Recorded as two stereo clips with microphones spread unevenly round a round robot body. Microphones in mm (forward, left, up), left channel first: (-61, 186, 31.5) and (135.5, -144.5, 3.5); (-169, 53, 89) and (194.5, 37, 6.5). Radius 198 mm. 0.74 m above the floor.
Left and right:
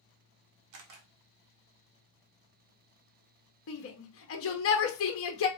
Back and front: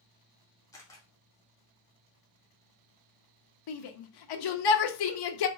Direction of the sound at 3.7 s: 170° left.